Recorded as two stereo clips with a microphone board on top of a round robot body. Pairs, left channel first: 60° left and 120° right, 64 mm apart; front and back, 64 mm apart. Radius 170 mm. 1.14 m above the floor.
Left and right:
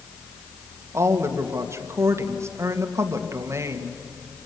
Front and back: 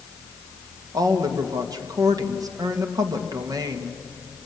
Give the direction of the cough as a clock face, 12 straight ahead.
I don't hear a cough.